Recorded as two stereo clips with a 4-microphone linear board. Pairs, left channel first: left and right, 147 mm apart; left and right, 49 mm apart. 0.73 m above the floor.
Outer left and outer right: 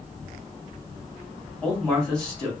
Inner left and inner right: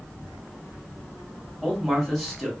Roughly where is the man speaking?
Centre.